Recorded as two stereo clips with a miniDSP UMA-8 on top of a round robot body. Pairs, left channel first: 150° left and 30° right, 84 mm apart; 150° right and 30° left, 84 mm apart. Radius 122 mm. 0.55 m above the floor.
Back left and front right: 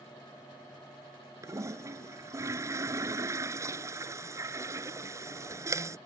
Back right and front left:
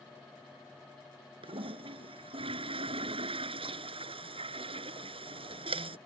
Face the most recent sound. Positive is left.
turn(degrees=25)